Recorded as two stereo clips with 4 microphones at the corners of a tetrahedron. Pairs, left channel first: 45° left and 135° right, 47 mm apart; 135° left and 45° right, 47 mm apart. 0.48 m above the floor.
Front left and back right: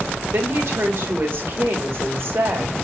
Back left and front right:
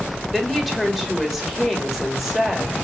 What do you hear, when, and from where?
0.3 s a woman speaking: 140° right, 1.7 m